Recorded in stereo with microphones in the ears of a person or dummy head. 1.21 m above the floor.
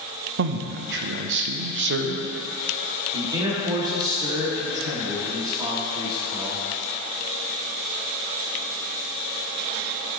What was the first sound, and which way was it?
A man speaking, 60° right (ahead or behind).